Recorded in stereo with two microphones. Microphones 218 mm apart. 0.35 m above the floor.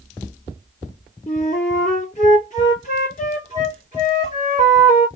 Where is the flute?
35° left (ahead or behind), 3 m.